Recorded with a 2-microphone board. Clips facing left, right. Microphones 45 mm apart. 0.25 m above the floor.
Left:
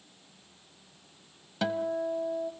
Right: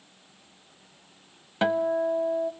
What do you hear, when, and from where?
1.6 s a guitar: 35° right (ahead or behind), 0.8 m